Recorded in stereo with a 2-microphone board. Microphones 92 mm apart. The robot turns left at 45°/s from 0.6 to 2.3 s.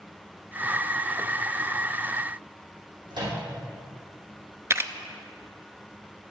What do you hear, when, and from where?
3.1 s a microwave: 60° right (ahead or behind), 4.5 m
4.7 s a camera shutter: 30° right (ahead or behind), 0.5 m